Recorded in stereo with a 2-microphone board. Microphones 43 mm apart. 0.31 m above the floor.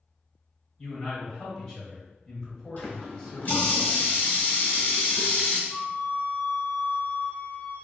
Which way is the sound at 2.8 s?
50° left (ahead or behind).